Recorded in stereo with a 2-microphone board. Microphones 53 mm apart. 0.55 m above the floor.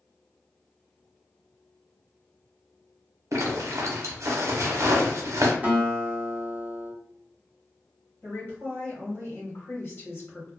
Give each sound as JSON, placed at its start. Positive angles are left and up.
{"t": 3.3, "sound": "a zipper", "side_deg": -75, "distance_m": 0.7}
{"t": 5.6, "sound": "a guitar", "side_deg": -25, "distance_m": 0.9}
{"t": 8.2, "sound": "a woman speaking", "side_deg": 50, "distance_m": 1.6}